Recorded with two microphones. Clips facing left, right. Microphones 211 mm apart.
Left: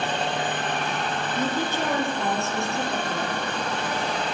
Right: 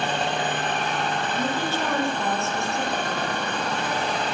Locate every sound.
1.4 s a woman speaking: 15° left (ahead or behind), 7 m